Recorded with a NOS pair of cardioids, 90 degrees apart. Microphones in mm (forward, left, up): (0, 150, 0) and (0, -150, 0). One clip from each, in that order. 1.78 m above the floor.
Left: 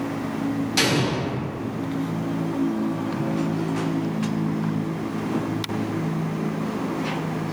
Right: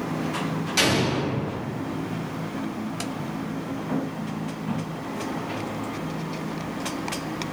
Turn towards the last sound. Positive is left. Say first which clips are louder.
# even
turn(degrees=5)